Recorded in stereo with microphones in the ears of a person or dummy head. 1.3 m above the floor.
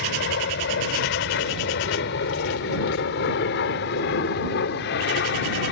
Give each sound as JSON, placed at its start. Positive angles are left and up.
{"t": 0.0, "sound": "an aircraft", "side_deg": 60}